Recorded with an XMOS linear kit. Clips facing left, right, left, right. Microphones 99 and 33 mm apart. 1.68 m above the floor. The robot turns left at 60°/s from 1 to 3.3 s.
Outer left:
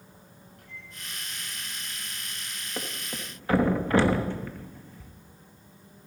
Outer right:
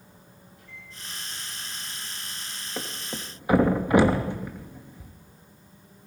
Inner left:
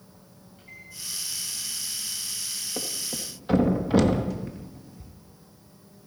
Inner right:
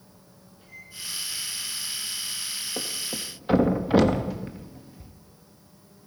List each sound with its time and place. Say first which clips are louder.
0.6 s a microwave: outer left 1 dB, even; 55° left (ahead or behind), 8 m
2.8 s a thud: outer right 1 dB, even; 5° right (ahead or behind), 1.0 m; by 5.1 s 15° right (ahead or behind), 1.0 m